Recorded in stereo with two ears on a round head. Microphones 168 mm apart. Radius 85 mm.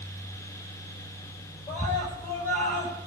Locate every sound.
1.7 s a scream: 10° left (ahead or behind), 8 m